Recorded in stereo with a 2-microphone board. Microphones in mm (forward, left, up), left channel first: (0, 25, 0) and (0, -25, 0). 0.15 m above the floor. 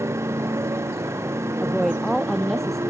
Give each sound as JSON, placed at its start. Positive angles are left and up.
{"t": 0.0, "sound": "a motorcycle", "side_deg": -70}
{"t": 1.6, "sound": "a woman speaking", "side_deg": 5}